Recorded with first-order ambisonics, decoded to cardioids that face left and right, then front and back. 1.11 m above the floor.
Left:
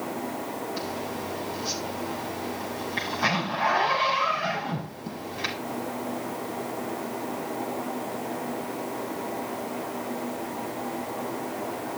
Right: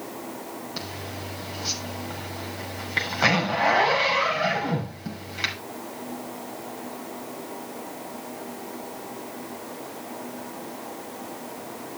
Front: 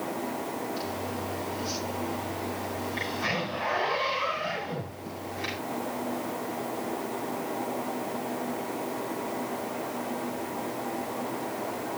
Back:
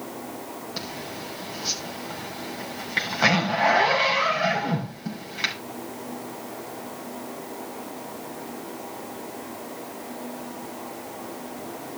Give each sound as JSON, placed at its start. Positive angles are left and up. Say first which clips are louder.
{"t": 0.8, "sound": "a zipper", "louder": "left 3 dB, front 1 dB", "azimuth_deg": -135, "distance_m": 6.0}